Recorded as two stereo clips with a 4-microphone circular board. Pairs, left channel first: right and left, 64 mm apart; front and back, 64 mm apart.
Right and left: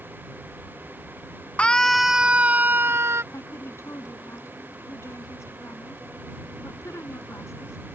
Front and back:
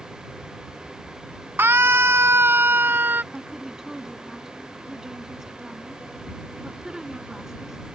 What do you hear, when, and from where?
1.6 s a scream: 150° right; by 3.2 s 130° left
3.3 s a woman speaking: 100° right